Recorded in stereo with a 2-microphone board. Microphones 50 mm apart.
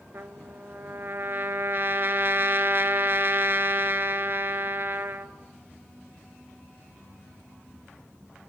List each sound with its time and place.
0.1 s a trumpet: 50° right (ahead or behind), 0.7 m